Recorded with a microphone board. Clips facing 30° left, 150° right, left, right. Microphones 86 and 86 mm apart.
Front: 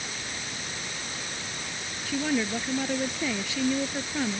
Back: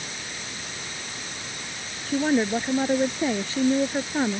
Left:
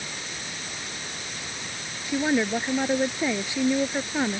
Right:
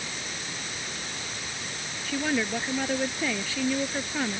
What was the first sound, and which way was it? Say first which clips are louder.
A woman speaking: back 5 dB, left 4 dB; 160° left.